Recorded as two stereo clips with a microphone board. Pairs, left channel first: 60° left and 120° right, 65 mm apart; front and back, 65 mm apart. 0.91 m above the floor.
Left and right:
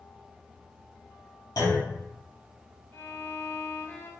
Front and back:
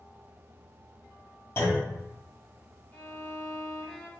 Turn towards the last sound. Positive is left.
turn(degrees=45)